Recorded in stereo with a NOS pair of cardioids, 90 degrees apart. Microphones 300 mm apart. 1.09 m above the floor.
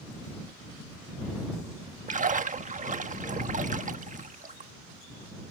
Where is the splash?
25° right.